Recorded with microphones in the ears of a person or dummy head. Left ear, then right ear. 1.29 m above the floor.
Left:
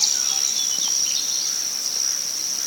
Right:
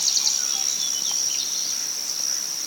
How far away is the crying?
No crying in this recording.